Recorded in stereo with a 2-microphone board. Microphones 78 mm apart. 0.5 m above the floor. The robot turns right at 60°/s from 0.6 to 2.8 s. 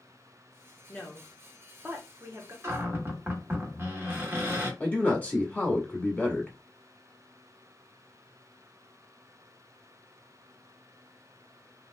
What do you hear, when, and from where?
0.9 s a woman speaking: 15° left (ahead or behind), 0.8 m; by 2.5 s 40° right (ahead or behind), 0.8 m
2.6 s a cupboard door: 30° right (ahead or behind), 0.9 m; by 4.7 s 25° right (ahead or behind), 0.9 m
4.8 s a man speaking: 10° left (ahead or behind), 0.9 m